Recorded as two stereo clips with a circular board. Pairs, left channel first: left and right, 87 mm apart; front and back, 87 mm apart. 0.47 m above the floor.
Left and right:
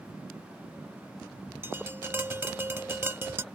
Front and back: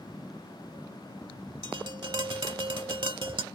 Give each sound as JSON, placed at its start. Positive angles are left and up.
{"t": 1.6, "sound": "tapping", "azimuth_deg": -155}